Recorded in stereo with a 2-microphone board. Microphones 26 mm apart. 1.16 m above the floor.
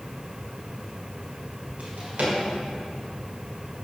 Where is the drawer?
70° right (ahead or behind), 2 m.